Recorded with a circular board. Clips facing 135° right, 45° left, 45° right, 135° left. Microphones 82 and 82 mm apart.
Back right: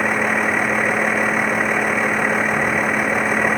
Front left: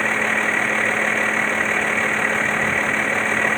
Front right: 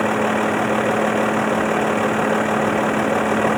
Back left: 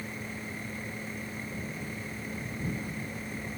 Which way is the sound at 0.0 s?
55° right.